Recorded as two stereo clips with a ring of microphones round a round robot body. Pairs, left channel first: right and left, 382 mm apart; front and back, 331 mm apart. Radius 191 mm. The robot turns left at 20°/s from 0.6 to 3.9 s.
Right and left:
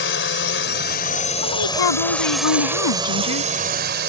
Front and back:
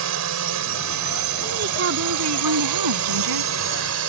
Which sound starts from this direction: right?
A woman speaking, at 1.4 s.